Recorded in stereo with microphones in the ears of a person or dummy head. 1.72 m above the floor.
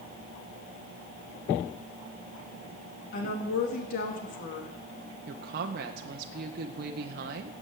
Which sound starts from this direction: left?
A woman speaking, at 3.1 s.